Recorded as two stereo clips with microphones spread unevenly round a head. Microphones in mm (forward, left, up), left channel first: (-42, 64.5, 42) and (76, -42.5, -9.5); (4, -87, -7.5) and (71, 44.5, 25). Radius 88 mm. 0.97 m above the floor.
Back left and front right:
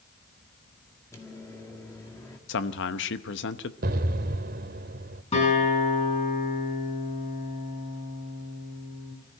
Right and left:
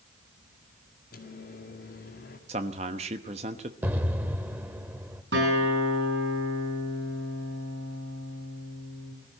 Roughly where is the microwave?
Behind right.